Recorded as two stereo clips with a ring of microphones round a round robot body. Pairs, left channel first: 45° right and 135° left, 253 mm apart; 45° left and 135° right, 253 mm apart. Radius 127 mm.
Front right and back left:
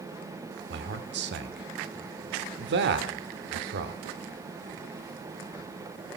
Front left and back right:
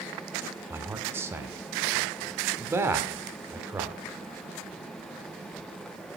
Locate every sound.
0.7 s a man speaking: 150° left, 1.0 m